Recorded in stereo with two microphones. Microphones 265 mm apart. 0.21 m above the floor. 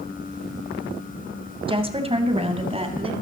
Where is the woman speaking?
20° right (ahead or behind), 1.1 m.